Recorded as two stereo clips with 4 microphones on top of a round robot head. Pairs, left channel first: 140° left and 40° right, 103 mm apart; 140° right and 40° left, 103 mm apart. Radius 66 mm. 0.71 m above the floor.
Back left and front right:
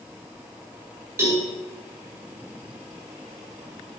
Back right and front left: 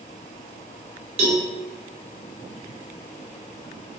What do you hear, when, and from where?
1.2 s a cowbell: 25° left, 2 m